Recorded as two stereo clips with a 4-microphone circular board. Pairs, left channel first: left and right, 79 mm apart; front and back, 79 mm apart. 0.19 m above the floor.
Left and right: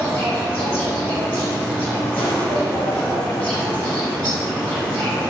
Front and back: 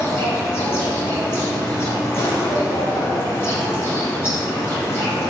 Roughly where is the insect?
Ahead left.